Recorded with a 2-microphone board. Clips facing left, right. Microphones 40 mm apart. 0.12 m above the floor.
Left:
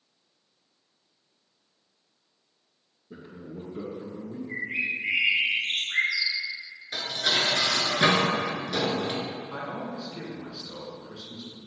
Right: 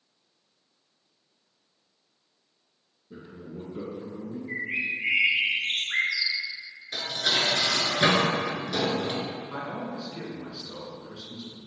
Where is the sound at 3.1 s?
20° left (ahead or behind), 1.8 m; by 4.4 s 10° right (ahead or behind), 1.4 m.